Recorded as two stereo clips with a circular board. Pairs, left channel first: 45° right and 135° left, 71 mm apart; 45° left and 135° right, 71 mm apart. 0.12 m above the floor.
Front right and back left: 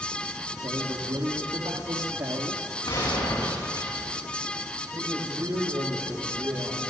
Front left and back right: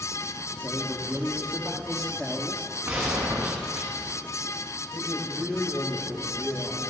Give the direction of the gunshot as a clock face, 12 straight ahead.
2 o'clock.